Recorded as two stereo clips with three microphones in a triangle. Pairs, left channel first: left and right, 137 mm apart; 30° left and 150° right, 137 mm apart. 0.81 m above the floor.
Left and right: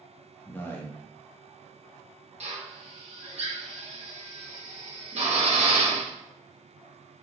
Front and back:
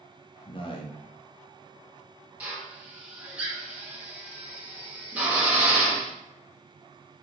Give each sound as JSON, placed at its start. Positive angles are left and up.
{"t": 0.5, "sound": "a man speaking", "azimuth_deg": 25, "distance_m": 0.7}
{"t": 2.4, "sound": "a drill", "azimuth_deg": -70, "distance_m": 0.7}